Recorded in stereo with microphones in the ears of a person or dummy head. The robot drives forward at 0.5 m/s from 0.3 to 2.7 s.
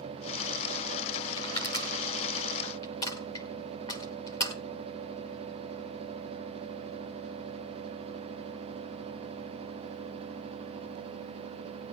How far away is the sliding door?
No sliding door in this recording.